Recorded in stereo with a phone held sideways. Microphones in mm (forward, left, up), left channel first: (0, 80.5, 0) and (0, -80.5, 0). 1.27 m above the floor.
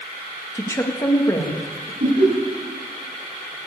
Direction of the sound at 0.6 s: 20° left (ahead or behind).